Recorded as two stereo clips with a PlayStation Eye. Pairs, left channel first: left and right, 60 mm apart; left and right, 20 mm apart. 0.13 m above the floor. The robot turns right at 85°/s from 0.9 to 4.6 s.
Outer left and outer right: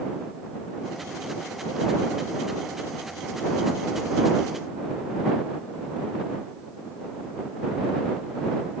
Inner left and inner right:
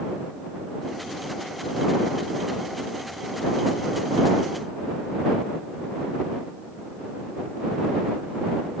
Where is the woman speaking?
No woman speaking in this recording.